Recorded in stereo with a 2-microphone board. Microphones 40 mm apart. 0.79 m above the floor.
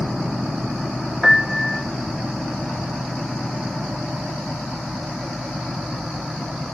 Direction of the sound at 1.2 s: 10° right (ahead or behind).